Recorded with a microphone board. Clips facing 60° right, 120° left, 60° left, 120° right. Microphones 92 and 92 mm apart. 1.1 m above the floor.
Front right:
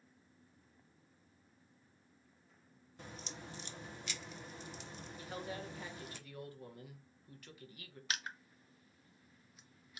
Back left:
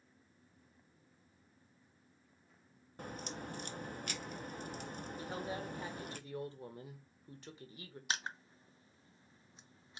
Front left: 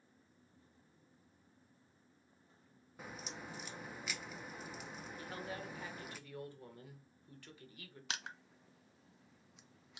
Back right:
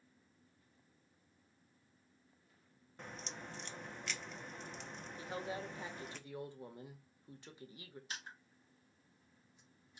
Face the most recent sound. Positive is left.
turn(degrees=60)